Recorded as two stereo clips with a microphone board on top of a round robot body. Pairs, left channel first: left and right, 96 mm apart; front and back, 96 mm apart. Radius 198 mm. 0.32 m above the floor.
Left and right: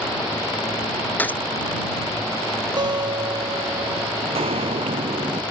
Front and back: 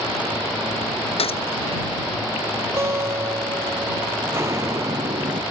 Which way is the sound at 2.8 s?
120° right.